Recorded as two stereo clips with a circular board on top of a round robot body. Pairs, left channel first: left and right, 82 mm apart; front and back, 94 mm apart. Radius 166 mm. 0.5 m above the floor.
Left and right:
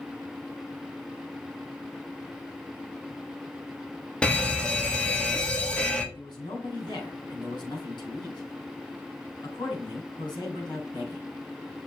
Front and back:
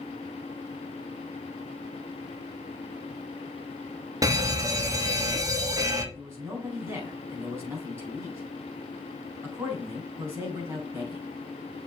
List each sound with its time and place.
4.2 s a fire alarm: 160° left, 2 m
6.2 s a man speaking: 115° left, 5.5 m